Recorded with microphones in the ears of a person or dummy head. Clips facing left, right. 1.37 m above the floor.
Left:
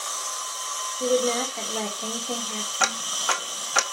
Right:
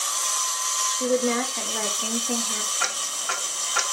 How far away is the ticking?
About 1.3 m.